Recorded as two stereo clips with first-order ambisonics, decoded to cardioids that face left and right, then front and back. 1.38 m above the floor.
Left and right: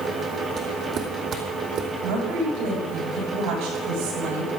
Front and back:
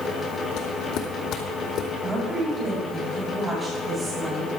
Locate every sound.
0.6 s footsteps: 30° right, 2.5 m; by 1.9 s 45° right, 3 m
2.0 s a woman speaking: 110° right, 7.5 m